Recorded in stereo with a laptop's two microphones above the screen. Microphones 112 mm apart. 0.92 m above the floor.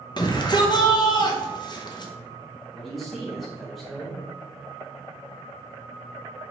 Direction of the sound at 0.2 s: 40° left (ahead or behind).